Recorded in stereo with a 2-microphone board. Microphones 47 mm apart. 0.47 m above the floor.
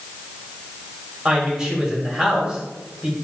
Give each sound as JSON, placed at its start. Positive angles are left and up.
{"t": 1.2, "sound": "a woman speaking", "side_deg": -20, "distance_m": 2.5}